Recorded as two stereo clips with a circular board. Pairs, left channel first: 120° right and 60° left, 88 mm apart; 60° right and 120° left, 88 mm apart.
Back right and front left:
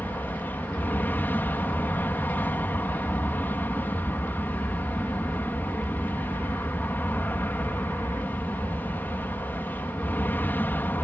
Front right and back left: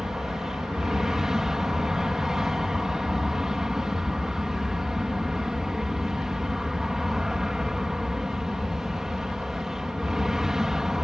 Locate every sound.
0.0 s an aircraft: 160° right